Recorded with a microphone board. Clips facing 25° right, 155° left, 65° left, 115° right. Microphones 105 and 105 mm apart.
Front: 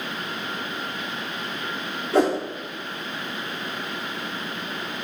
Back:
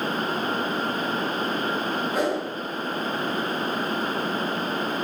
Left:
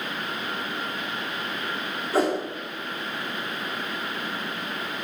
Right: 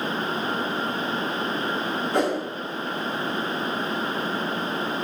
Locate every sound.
2.1 s a whoosh: 20° right, 3.5 m